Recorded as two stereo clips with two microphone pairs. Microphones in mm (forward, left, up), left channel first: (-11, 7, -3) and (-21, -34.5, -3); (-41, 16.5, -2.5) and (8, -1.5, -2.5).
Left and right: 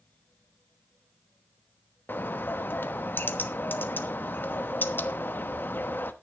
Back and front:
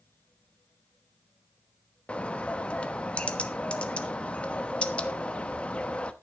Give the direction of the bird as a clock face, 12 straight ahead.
9 o'clock.